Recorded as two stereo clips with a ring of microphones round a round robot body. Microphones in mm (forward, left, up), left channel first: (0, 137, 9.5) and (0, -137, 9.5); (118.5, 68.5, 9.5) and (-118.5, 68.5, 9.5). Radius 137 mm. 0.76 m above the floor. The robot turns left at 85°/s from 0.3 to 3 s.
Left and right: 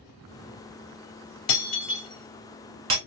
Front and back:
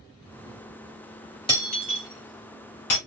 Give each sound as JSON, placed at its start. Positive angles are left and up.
{"t": 1.5, "sound": "breaking glass", "azimuth_deg": 70, "distance_m": 1.5}